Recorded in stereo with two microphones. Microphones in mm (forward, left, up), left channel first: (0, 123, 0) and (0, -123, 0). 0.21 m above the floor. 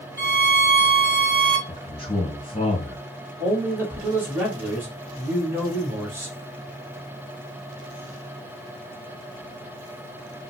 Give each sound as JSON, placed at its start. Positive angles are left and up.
{"t": 0.2, "sound": "a violin", "side_deg": -30, "distance_m": 1.5}
{"t": 1.7, "sound": "a man speaking", "side_deg": 25, "distance_m": 1.8}
{"t": 3.4, "sound": "a man speaking", "side_deg": -10, "distance_m": 2.0}